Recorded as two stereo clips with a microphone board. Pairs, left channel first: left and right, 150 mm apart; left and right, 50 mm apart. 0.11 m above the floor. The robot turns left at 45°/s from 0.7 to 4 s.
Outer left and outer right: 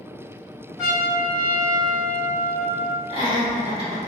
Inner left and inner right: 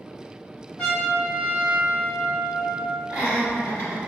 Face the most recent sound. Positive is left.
turn(degrees=-40)  # may be behind; listen again after turning